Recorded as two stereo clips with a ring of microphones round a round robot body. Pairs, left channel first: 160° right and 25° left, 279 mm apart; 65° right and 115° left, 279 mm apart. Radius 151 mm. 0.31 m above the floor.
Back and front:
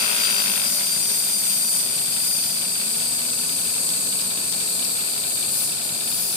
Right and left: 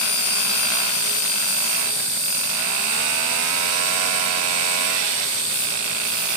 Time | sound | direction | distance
0.0 | an insect | 110° right | 3.5 m